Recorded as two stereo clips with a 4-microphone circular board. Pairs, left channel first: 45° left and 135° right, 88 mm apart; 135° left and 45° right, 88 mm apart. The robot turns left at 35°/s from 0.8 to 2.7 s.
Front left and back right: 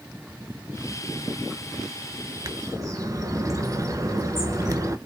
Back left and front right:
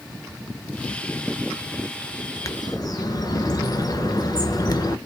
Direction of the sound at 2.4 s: 175° right.